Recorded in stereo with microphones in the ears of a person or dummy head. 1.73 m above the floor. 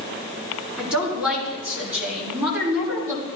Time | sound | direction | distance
0.8 | a woman speaking | 5° right (ahead or behind) | 5 m